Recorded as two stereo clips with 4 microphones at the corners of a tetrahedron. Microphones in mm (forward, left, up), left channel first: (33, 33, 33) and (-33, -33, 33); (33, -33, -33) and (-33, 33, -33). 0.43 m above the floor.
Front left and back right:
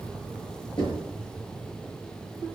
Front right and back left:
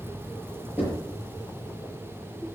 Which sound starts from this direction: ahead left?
Knocking, at 0.8 s.